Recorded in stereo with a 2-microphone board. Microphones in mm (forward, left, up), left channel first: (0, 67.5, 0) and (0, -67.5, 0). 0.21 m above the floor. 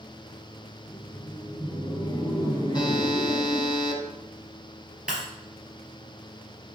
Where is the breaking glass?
5° right (ahead or behind), 2.5 m.